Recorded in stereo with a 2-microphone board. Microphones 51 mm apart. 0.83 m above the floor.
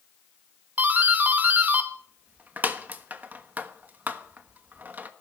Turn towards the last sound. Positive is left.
turn(degrees=-35)  # may be behind; listen again after turning